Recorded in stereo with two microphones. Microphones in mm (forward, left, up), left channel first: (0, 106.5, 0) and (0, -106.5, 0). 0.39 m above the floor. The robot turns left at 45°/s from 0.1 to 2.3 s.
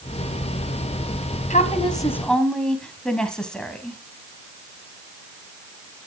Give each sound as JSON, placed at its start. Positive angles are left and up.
{"t": 1.5, "sound": "a woman speaking", "azimuth_deg": 40, "distance_m": 2.5}